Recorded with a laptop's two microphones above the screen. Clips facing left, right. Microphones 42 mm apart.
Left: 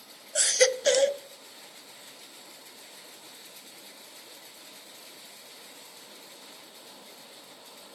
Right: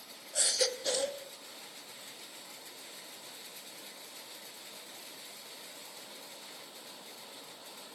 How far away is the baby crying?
About 0.5 m.